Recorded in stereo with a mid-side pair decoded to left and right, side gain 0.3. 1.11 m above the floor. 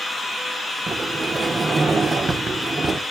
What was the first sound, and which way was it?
A sliding door, 50° right.